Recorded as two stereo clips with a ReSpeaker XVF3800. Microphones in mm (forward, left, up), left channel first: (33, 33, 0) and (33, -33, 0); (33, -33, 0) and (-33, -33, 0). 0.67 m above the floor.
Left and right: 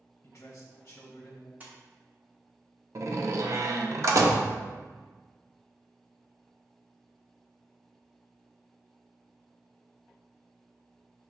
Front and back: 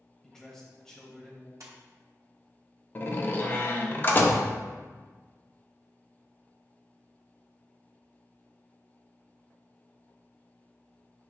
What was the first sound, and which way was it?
A man speaking, 80° left.